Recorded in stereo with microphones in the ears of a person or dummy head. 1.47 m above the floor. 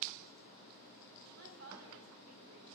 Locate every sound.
1.4 s a woman speaking: 85° right, 2 m